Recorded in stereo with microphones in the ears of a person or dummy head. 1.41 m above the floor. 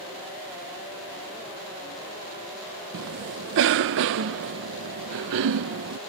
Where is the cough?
65° right (ahead or behind).